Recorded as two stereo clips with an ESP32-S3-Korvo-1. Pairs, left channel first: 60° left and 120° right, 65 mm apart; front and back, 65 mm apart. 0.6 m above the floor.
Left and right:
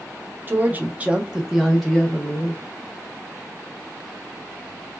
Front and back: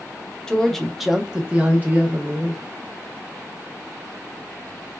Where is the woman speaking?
75° right, 0.9 m; by 2.6 s 130° left, 1.1 m.